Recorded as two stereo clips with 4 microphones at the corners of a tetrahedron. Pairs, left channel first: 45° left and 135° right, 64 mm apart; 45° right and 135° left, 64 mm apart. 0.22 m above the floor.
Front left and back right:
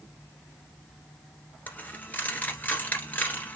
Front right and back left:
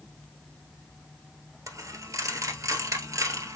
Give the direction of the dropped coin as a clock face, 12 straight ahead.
8 o'clock.